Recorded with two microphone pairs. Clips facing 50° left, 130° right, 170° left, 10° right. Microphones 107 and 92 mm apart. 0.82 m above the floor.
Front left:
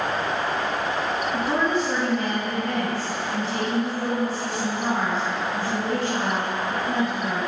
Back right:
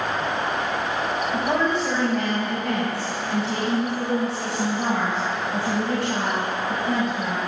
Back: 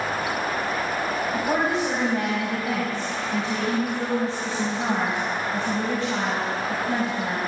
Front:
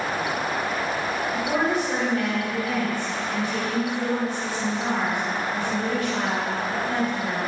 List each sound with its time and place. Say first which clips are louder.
1.3 s a woman speaking: back right 1 dB, even; 130° right, 4.5 m